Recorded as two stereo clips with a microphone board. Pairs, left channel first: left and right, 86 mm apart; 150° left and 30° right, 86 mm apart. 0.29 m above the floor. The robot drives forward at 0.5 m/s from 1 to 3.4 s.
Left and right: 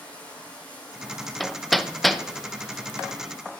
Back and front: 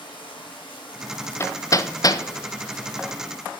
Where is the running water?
165° left, 6 m; by 3.6 s 170° left, 7 m.